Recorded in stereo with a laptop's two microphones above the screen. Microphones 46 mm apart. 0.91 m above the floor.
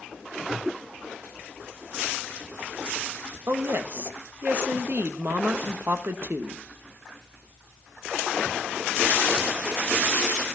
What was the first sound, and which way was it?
A woman speaking, 50° right (ahead or behind).